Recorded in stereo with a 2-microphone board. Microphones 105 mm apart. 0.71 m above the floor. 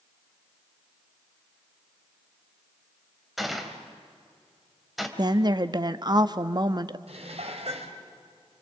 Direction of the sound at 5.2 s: 40° right (ahead or behind).